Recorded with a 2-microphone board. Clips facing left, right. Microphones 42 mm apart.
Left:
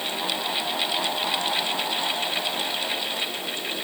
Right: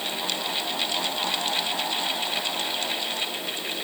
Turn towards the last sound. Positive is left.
No sound to turn to.